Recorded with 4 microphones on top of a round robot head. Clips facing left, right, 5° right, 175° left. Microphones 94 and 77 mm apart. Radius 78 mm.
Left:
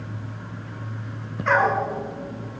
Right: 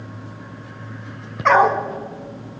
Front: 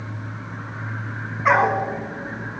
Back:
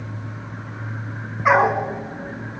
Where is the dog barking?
105° right, 1.6 m.